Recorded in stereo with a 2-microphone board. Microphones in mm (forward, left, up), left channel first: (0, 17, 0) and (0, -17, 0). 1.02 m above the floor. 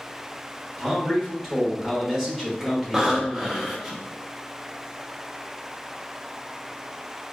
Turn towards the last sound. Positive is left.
turn(degrees=-10)  # may be behind; listen again after turning